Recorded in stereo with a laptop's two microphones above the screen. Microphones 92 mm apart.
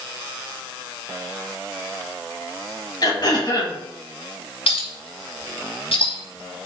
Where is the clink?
85° left, 4.5 m.